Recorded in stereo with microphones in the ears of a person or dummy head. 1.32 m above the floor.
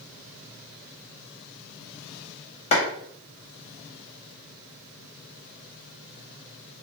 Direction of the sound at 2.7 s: 40° left (ahead or behind).